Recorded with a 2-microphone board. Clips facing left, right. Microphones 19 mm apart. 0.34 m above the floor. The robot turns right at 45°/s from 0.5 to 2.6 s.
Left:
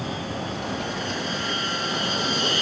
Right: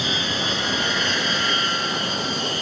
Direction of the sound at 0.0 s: 80° right.